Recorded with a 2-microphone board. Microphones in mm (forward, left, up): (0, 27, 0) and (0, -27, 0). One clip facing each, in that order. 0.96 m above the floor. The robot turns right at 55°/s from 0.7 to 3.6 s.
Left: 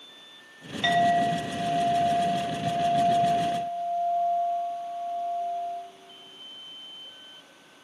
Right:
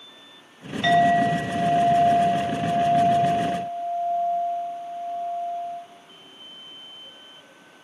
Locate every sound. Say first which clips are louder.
0.8 s a clink: right 4 dB; 170° right, 2.5 m; by 5.8 s 20° right, 2.5 m